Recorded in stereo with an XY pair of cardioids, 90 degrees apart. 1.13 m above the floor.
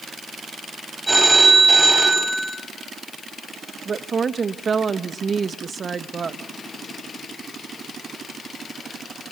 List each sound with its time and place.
1.1 s a phone ringing: 10° right, 6 m
3.9 s a woman speaking: 45° right, 1.4 m